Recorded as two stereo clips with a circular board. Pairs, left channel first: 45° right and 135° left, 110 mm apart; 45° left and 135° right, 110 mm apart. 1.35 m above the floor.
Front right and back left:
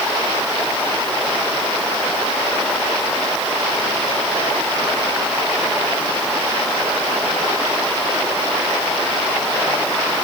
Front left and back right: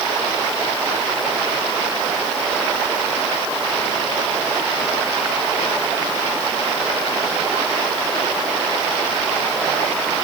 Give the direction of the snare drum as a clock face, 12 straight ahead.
I don't hear a snare drum.